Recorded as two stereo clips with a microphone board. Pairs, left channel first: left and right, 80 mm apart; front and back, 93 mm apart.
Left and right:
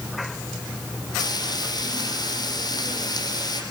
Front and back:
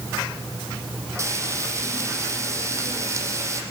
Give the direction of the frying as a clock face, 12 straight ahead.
8 o'clock.